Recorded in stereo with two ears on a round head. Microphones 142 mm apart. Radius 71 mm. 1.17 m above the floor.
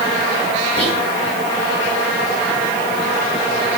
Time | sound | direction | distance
0.8 | whispering | 40° left (ahead or behind) | 4 m